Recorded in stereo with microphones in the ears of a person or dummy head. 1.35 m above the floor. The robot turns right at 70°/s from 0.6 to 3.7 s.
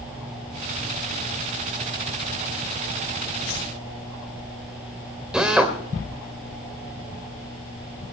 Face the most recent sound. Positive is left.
turn(degrees=-5)  # may be behind; listen again after turning